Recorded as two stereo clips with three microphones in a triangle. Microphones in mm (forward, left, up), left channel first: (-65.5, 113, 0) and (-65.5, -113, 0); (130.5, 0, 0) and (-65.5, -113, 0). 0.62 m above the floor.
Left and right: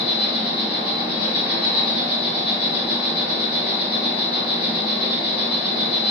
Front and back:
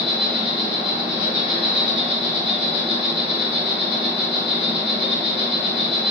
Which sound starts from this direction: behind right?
An insect, at 0.0 s.